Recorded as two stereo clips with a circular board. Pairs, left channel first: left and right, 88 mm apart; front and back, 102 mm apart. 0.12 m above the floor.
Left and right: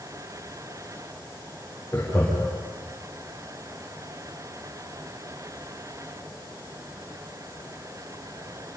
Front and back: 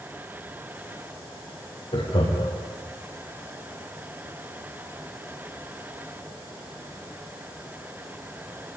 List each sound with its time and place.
1.9 s laughter: 15° left, 5.5 m